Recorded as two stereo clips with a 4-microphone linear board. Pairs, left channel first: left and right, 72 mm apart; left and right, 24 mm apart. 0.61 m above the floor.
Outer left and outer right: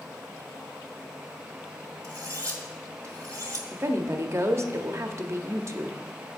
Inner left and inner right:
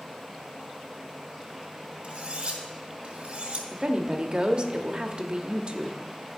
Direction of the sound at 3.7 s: 40° right (ahead or behind).